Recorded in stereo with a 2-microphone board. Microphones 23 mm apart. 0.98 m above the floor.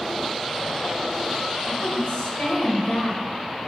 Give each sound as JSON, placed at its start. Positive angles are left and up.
{"t": 1.7, "sound": "a woman speaking", "side_deg": 55, "distance_m": 4.5}